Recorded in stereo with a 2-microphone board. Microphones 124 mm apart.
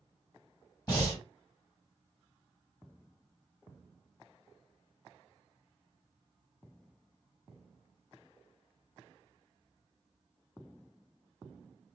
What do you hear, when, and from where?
0.9 s breathing: 35° left (ahead or behind), 2 m